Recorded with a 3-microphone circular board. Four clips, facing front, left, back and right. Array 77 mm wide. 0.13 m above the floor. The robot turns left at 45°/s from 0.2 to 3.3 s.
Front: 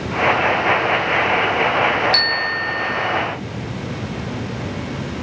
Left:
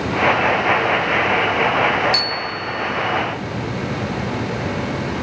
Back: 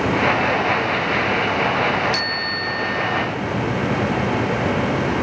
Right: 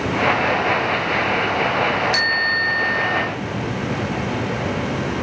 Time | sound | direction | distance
2.1 | a bicycle bell | 50° right | ?